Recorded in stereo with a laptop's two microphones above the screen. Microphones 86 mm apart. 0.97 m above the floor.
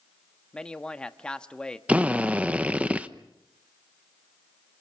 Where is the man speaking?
10° left (ahead or behind), 1.3 m.